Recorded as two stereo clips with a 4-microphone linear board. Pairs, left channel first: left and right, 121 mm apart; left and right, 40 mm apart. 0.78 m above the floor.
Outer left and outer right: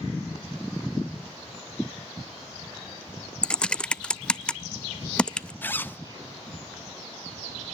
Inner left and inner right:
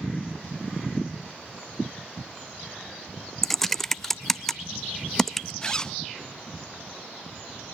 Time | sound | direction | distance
3.4 | typing on a keyboard | 5° left (ahead or behind) | 0.5 m
5.6 | a zipper | 15° left (ahead or behind) | 0.6 m